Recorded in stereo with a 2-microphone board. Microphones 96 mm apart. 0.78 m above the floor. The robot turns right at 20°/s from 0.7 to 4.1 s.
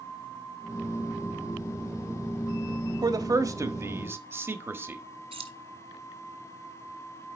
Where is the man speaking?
45° right (ahead or behind), 1.1 m; by 5.0 s 25° right (ahead or behind), 1.1 m.